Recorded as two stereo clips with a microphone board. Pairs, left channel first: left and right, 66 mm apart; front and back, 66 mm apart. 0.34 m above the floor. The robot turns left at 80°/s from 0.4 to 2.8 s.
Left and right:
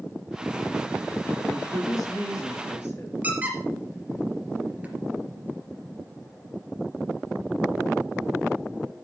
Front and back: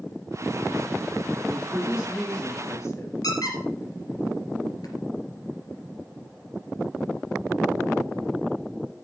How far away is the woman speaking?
About 5.5 m.